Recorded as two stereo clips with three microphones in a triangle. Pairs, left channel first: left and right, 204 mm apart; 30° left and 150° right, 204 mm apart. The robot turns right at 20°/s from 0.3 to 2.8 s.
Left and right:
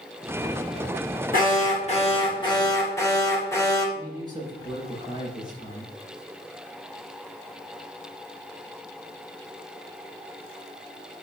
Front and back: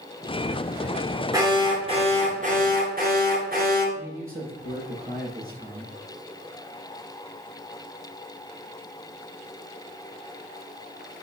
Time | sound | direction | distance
1.3 | an alarm | 135° left | 2.5 m
4.0 | a man speaking | 160° right | 4.5 m